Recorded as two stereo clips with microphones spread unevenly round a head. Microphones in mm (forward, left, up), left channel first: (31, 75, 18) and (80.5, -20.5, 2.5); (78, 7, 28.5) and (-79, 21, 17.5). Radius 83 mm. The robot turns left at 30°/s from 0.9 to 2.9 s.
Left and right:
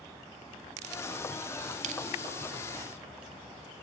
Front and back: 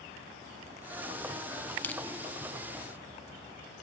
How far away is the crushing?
About 0.7 m.